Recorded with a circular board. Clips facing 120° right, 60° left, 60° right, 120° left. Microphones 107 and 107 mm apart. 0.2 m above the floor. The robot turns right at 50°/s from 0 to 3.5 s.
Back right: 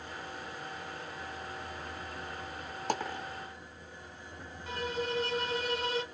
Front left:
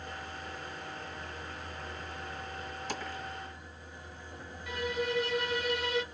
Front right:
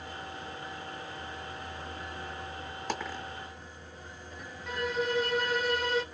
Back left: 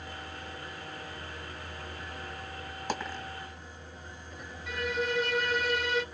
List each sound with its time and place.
2.9 s a dropped coin: 155° right, 2 m; by 3.2 s 140° right, 2 m
4.7 s a violin: 150° right, 1.8 m